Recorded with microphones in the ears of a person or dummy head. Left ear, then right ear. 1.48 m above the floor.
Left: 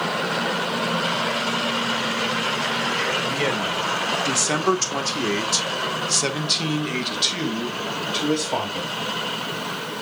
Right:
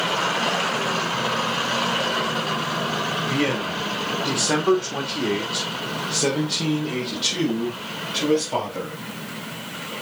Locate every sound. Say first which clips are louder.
3.3 s a man speaking: left 1 dB; 40° left (ahead or behind), 2.5 m; by 8.9 s 20° left (ahead or behind), 3.5 m